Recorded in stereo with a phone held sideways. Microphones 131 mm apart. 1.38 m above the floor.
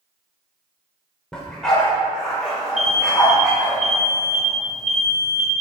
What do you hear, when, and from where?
1.3 s a dog barking: 5° left (ahead or behind), 2 m
2.8 s an alarm: 60° right (ahead or behind), 1.1 m